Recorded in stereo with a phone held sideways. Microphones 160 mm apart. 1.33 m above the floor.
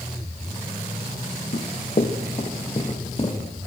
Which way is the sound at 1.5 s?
55° left (ahead or behind).